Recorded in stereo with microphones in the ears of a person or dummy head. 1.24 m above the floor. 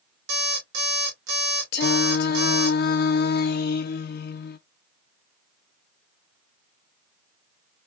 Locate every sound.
0.3 s an alarm clock: 70° right (ahead or behind), 2 m
1.7 s singing: 55° left (ahead or behind), 0.6 m